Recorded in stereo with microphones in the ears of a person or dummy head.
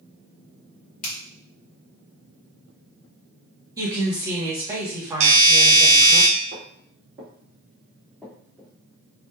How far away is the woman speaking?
About 1.2 m.